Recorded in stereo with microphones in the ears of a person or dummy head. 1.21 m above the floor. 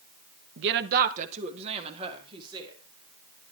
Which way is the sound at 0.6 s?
60° right (ahead or behind).